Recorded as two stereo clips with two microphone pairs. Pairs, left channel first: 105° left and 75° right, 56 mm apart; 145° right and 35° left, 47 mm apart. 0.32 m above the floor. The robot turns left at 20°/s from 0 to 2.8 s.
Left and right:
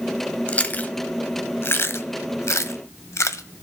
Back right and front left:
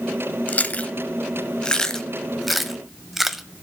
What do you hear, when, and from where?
0.5 s chewing: 165° left, 0.6 m; by 3.4 s 120° left, 0.6 m